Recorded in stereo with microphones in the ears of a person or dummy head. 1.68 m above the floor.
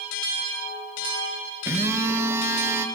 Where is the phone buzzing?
5° right (ahead or behind), 1.8 m.